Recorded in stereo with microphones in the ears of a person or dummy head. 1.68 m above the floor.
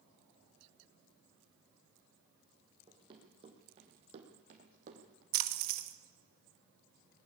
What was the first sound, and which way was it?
Running footsteps, 30° right (ahead or behind).